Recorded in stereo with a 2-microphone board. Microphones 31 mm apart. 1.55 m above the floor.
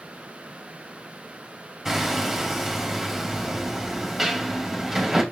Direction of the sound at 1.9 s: 5° right (ahead or behind).